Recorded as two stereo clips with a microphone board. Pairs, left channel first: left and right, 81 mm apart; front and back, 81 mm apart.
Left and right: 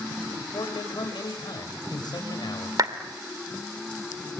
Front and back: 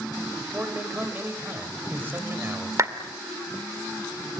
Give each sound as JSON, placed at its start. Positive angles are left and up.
{"t": 0.5, "sound": "a man speaking", "azimuth_deg": 115, "distance_m": 5.5}
{"t": 2.8, "sound": "a clap", "azimuth_deg": -130, "distance_m": 2.0}